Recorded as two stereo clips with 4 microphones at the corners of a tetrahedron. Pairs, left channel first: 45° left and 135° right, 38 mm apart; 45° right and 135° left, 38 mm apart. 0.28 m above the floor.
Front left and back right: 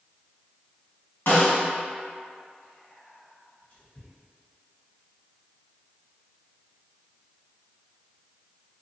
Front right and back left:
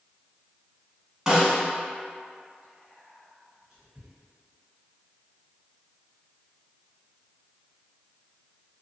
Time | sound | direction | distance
1.3 | a snare drum | 60° left | 1.1 m
2.6 | whispering | 70° left | 2.0 m